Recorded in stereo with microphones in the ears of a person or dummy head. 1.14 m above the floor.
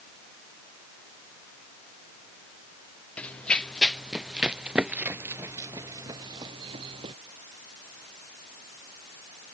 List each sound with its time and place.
3.2 s running footsteps: 10° left (ahead or behind); by 7.2 s 30° right (ahead or behind)